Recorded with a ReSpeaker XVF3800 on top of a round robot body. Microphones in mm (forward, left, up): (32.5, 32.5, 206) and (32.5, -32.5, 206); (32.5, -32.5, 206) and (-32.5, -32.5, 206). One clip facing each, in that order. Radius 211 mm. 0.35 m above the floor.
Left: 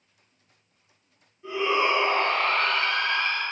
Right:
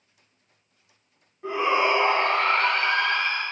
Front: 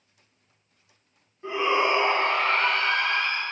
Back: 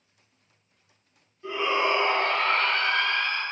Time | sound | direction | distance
1.4 | a shout | 60° right | 5 m